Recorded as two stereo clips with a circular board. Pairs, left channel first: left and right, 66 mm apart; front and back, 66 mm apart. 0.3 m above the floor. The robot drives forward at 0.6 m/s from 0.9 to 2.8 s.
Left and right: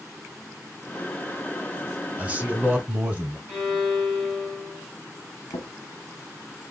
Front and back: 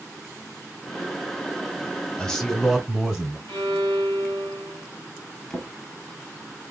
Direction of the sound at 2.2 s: 60° right.